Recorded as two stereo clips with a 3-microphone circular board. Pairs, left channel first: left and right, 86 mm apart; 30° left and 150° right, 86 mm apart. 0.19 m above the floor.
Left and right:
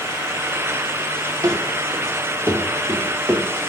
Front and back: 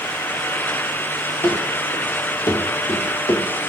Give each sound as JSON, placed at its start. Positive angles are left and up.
{"t": 1.4, "sound": "running footsteps", "azimuth_deg": -35, "distance_m": 3.0}